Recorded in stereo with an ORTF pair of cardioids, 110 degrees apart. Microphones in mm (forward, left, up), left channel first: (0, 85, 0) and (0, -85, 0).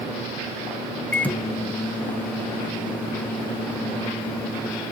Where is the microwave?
10° left, 0.5 m.